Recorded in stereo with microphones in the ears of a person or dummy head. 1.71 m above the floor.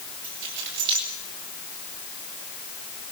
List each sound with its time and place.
0.2 s keys jangling: 65° right (ahead or behind), 7.5 m